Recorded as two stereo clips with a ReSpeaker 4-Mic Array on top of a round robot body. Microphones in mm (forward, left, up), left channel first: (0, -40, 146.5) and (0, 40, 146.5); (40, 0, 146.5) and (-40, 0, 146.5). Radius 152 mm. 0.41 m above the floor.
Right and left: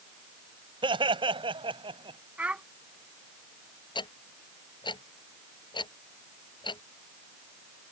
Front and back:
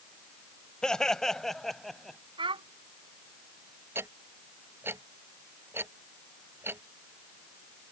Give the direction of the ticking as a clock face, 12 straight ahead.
4 o'clock.